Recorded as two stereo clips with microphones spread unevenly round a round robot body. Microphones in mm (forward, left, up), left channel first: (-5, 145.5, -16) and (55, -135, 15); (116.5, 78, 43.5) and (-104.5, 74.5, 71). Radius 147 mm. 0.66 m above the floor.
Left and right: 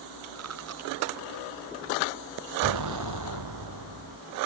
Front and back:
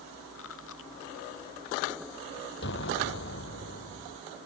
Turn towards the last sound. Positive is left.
turn(degrees=-50)